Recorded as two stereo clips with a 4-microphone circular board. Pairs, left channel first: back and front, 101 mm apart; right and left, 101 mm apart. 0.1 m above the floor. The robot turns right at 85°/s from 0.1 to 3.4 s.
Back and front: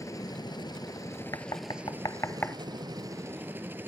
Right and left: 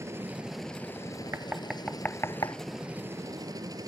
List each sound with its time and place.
0.0 s a helicopter: 140° left; by 3.9 s 60° left
1.3 s knocking: 145° left; by 2.6 s 110° right